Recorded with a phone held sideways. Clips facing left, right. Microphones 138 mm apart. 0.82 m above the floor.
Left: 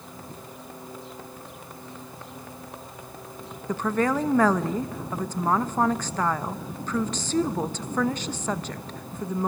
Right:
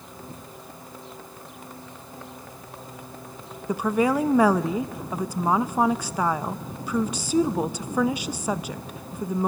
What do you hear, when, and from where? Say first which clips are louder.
3.7 s a woman speaking: right 2 dB; 10° right (ahead or behind), 0.9 m